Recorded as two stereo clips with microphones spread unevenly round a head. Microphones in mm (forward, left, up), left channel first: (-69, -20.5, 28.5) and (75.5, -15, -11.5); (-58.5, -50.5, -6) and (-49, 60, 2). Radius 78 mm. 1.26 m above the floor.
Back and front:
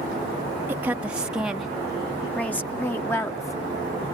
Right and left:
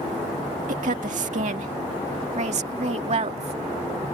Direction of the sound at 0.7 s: 80° left.